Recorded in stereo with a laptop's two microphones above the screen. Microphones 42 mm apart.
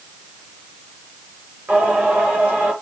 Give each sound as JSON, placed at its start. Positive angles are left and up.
{"t": 1.7, "sound": "singing", "side_deg": -35, "distance_m": 4.5}